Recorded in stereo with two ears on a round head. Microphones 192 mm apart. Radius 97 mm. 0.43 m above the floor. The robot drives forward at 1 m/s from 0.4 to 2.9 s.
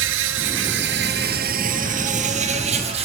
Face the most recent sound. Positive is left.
turn(degrees=-30)  # may be behind; listen again after turning